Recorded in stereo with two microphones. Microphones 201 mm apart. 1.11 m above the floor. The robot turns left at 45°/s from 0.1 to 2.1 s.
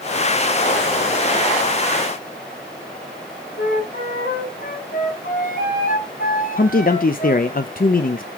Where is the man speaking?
45° left (ahead or behind), 0.5 m.